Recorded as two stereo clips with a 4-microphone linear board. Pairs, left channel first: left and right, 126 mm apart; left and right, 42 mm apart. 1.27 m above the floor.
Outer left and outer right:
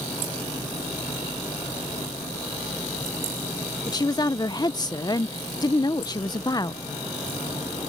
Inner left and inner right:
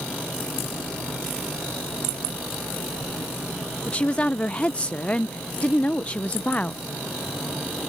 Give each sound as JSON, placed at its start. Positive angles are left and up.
{"t": 3.9, "sound": "a woman speaking", "side_deg": 30}